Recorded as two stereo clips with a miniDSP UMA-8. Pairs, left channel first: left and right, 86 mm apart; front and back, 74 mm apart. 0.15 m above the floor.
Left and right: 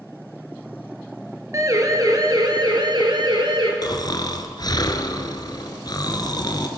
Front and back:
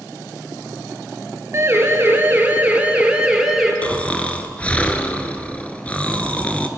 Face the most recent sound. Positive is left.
turn(degrees=70)